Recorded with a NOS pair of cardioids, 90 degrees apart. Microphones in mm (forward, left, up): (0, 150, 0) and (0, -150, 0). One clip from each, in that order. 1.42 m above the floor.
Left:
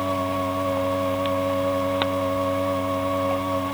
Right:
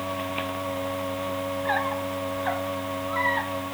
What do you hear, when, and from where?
0.0 s a machine running: 50° left